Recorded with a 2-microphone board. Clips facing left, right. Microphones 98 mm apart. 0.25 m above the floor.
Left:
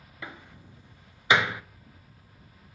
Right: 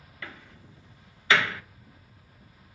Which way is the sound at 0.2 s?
15° left (ahead or behind).